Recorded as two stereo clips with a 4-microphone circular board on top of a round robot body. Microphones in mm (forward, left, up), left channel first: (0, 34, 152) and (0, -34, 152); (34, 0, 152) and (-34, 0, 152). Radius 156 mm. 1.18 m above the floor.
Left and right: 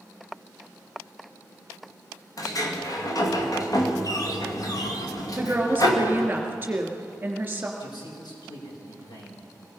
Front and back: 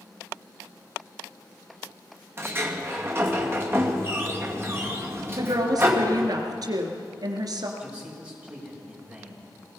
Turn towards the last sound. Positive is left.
turn(degrees=105)